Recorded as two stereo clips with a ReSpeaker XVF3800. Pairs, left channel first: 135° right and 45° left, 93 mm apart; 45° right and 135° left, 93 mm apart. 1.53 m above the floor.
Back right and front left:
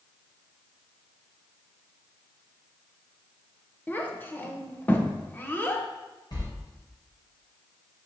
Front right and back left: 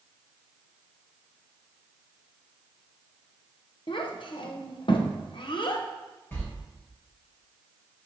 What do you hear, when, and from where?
3.9 s a child speaking: 65° right, 0.9 m
6.3 s a sliding door: 110° right, 2.5 m